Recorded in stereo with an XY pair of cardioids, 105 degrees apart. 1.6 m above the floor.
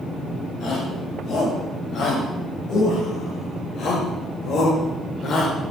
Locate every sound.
0.6 s a shout: 65° left, 8.5 m; by 5.7 s 55° left, 5 m